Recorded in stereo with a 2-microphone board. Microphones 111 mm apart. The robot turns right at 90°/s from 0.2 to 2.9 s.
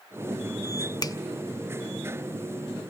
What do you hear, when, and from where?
1.0 s a finger snap: 35° left (ahead or behind), 0.8 m; by 1.2 s 30° left (ahead or behind), 0.8 m